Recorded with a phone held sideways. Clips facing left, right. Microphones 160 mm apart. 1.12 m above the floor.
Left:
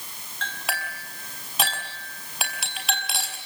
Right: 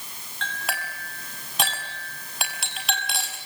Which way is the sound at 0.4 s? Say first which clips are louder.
Even; centre (ahead or behind).